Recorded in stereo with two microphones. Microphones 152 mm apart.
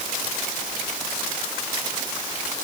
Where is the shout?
No shout in this recording.